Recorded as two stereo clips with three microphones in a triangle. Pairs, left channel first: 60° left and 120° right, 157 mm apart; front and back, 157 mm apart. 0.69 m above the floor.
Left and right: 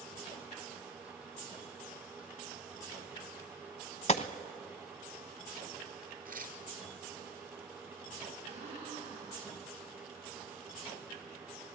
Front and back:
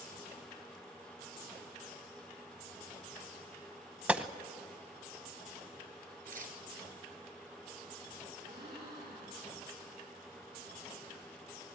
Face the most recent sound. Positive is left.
turn(degrees=-165)